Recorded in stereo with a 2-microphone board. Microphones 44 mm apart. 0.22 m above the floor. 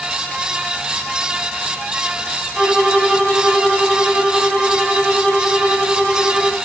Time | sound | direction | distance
2.5 | a violin | 10° right (ahead or behind) | 1.9 m